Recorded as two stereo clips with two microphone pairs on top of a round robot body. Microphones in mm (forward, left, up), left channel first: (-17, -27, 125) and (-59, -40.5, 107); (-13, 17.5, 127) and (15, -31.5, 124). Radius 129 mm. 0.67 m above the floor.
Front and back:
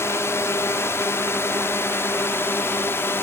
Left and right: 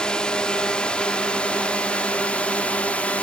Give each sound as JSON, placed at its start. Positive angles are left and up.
{"t": 0.0, "sound": "a drone", "azimuth_deg": 45}